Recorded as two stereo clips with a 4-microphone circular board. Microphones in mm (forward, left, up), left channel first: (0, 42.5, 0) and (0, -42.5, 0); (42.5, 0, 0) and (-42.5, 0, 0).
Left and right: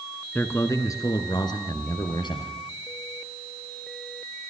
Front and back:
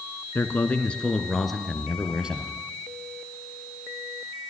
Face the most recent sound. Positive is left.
turn(degrees=100)